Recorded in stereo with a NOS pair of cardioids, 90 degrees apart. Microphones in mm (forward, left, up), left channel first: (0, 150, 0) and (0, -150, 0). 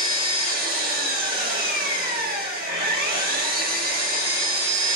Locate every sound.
0.0 s an engine running: 30° right, 1.5 m